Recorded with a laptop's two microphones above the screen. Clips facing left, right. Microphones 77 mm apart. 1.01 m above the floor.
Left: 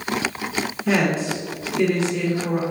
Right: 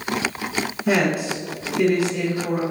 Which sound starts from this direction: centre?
A woman speaking, at 0.9 s.